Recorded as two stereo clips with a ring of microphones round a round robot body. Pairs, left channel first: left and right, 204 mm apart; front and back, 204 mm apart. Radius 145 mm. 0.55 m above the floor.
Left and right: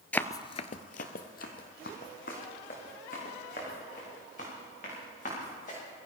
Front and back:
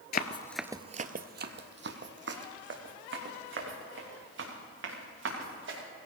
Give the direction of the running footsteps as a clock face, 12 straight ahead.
12 o'clock.